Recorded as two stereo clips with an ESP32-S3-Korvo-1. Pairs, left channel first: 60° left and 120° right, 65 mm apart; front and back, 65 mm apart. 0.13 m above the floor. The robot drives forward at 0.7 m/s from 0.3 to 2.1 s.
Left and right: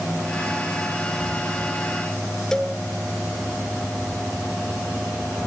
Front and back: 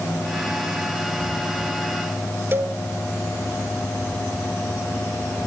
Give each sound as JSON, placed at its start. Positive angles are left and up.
{"t": 2.5, "sound": "a cowbell", "azimuth_deg": 135, "distance_m": 0.9}